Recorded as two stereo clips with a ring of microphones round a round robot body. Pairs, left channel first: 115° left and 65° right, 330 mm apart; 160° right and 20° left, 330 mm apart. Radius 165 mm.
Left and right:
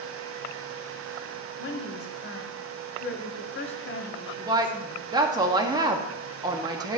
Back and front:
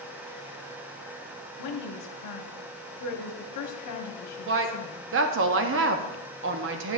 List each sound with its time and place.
1.6 s a woman speaking: 170° left, 1.1 m
4.5 s a woman speaking: 5° left, 0.7 m